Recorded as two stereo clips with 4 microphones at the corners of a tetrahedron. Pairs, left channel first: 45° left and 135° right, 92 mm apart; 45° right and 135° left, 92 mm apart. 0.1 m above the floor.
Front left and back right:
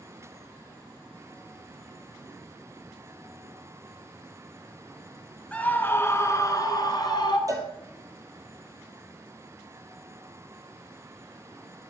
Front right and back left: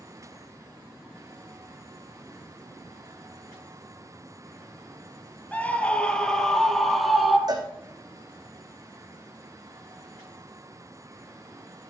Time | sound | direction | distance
5.5 | a scream | 5° right | 1.6 m
7.5 | a cowbell | 175° left | 2 m